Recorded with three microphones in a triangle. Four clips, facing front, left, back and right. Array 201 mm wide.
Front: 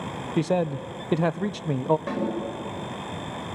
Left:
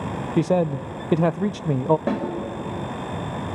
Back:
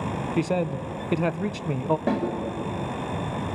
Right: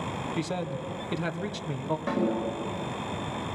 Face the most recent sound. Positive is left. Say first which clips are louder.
# left 4 dB, back 4 dB
turn(degrees=120)